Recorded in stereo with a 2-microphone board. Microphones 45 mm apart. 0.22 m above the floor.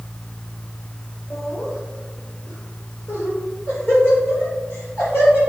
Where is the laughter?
65° left (ahead or behind), 2.5 m.